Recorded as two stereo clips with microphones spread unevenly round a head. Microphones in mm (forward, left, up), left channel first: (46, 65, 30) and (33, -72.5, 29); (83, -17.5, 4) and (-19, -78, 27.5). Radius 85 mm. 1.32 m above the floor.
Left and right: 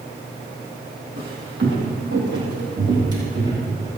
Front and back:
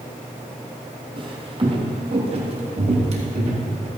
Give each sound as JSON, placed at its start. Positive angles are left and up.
{"t": 1.2, "sound": "footsteps", "azimuth_deg": -115, "distance_m": 3.0}